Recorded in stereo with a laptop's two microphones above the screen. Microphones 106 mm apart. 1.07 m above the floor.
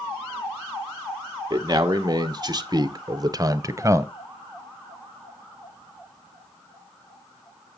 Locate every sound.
1.5 s a man speaking: 35° right (ahead or behind), 1.2 m; by 4.1 s 25° right (ahead or behind), 0.9 m